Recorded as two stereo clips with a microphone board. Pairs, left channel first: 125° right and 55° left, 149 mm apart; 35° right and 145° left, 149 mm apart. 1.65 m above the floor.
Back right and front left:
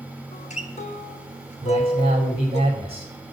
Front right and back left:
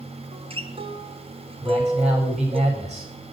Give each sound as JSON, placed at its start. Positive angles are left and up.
{"t": 0.3, "sound": "a guitar", "azimuth_deg": -165, "distance_m": 1.3}
{"t": 1.6, "sound": "a man speaking", "azimuth_deg": 105, "distance_m": 5.0}